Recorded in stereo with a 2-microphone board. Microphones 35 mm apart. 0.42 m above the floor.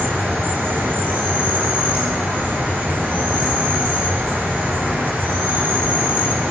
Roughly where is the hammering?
I don't hear hammering.